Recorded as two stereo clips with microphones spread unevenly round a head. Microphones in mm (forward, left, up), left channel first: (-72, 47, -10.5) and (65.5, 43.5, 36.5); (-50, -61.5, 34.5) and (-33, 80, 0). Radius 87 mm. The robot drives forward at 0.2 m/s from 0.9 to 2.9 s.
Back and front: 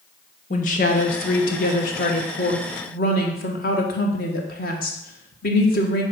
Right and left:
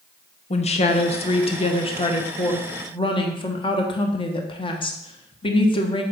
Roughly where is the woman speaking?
Behind right.